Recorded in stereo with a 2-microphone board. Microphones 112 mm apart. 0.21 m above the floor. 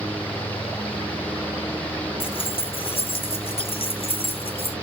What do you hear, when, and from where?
2.2 s keys jangling: 55° left (ahead or behind), 1.6 m